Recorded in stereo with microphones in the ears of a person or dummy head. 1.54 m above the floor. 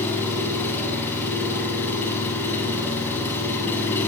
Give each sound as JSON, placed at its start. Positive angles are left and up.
{"t": 0.0, "sound": "an engine running", "side_deg": 15, "distance_m": 8.0}